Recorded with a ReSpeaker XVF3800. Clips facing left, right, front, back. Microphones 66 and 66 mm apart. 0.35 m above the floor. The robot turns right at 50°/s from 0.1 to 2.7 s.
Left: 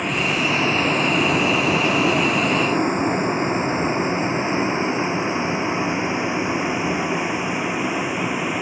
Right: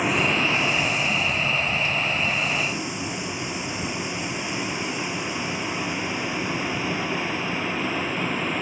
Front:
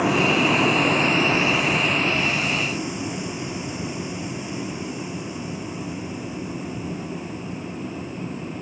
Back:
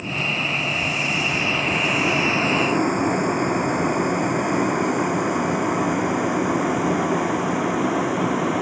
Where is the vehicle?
5° right; by 8.6 s 170° left.